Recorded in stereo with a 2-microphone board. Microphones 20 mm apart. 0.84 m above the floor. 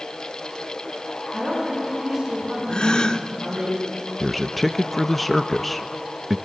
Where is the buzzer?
No buzzer in this recording.